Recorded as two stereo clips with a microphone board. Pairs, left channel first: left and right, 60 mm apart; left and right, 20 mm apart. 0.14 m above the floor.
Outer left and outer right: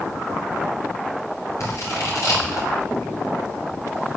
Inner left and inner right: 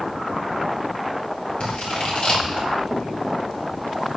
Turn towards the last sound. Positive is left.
turn(degrees=55)  # may be behind; listen again after turning